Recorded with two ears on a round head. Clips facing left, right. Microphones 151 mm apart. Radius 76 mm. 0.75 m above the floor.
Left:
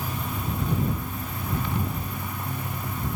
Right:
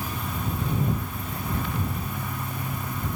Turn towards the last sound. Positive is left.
No sound to turn to.